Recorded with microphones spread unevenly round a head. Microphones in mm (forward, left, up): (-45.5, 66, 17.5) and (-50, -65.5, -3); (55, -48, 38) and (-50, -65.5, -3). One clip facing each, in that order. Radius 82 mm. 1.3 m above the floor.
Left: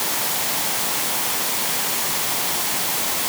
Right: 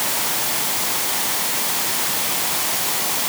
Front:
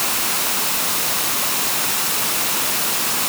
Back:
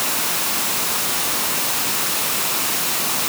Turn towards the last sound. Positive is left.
No sound to turn to.